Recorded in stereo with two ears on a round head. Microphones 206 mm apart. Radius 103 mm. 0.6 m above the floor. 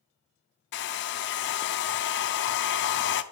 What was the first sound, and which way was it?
A hair dryer, 50° left (ahead or behind).